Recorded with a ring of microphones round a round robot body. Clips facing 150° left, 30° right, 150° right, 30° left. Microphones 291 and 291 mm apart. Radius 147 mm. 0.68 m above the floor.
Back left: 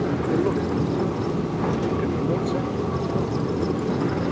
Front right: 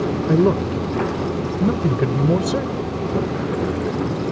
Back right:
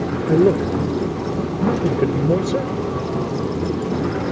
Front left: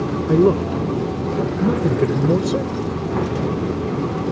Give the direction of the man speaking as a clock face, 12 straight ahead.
2 o'clock.